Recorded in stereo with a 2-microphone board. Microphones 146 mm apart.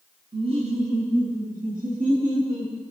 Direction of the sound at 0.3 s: 35° right (ahead or behind).